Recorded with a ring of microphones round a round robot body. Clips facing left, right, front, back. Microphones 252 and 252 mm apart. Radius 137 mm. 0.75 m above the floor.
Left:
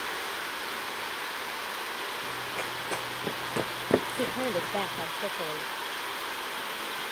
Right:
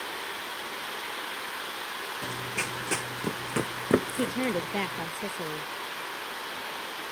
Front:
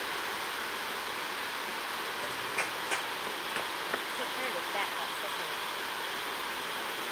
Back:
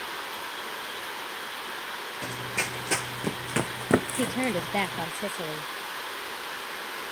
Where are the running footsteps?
135° right; by 5.1 s 175° right.